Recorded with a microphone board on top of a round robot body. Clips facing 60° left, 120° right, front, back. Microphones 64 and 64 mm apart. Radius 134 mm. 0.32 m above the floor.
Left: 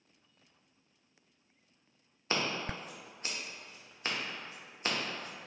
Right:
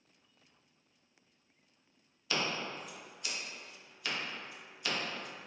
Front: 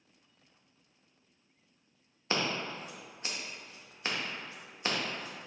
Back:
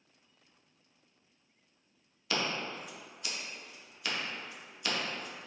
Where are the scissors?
35° left, 1.0 m.